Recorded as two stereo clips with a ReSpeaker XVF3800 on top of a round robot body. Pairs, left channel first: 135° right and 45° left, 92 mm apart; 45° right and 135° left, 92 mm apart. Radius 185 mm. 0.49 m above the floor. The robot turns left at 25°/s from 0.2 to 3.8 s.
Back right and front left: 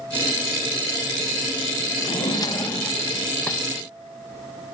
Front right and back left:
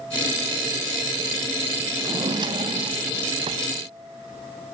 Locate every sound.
2.0 s a drawer: 170° right, 1.5 m; by 3.6 s 150° left, 1.5 m